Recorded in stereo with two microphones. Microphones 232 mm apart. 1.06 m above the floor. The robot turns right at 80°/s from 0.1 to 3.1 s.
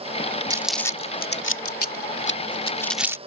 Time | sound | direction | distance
0.5 | crumpling | 15° right (ahead or behind) | ?